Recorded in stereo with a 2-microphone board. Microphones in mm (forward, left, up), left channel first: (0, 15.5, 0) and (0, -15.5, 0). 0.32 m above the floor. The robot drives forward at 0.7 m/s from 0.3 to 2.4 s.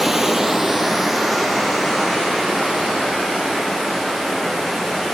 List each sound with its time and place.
0.0 s running water: 10° right (ahead or behind), 0.7 m; by 5.2 s 5° right (ahead or behind), 2 m